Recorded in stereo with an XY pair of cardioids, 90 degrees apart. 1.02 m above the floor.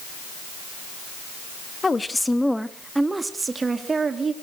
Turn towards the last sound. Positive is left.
turn(degrees=-45)